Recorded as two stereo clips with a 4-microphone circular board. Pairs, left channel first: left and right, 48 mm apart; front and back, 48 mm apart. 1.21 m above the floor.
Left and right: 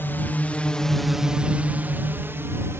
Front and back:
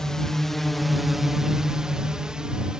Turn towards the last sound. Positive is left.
turn(degrees=-105)